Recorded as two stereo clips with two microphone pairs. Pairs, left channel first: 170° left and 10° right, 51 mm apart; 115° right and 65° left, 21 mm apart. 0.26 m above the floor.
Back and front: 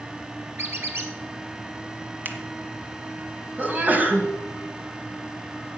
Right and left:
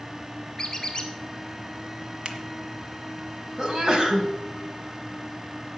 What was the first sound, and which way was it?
A squeak, 45° right.